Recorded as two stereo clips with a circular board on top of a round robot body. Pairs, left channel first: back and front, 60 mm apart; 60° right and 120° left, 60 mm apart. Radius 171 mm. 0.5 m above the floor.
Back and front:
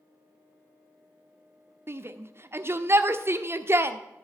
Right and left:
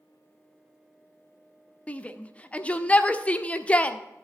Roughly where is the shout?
Ahead.